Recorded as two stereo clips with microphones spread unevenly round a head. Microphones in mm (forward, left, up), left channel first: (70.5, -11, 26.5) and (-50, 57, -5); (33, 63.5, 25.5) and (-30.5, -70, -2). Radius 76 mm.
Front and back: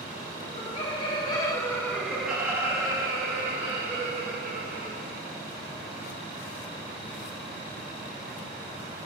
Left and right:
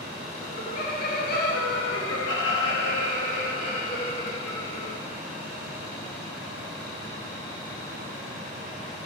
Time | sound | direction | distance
0.4 | laughter | 15° left | 1.8 m